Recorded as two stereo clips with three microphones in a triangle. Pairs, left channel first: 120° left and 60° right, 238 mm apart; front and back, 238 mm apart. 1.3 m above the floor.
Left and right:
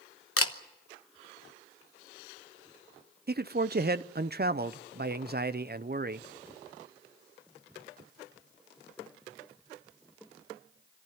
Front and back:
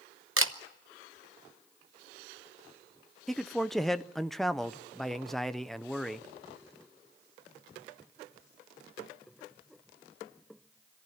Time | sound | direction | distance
0.4 | a camera shutter | 145° left | 0.9 m
3.3 | a man speaking | 90° right | 0.5 m